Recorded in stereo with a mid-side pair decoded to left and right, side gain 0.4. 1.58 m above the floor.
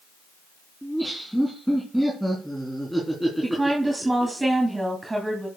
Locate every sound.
0.8 s laughter: 5° right, 4 m
3.4 s a woman speaking: 20° right, 3 m